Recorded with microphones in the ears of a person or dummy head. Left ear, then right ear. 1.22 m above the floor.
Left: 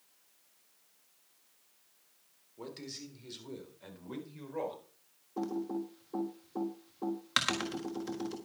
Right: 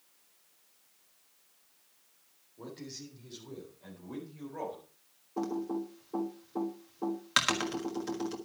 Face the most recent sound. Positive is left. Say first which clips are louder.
# right 2 dB
turn(degrees=-5)  # may be behind; listen again after turning